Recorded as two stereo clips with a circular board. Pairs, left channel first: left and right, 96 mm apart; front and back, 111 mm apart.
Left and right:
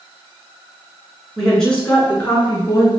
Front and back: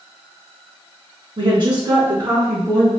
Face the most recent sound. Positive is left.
turn(degrees=140)